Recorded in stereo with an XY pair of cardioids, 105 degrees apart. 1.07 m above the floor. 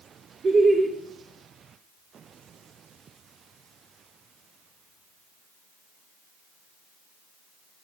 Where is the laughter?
35° right, 0.8 m.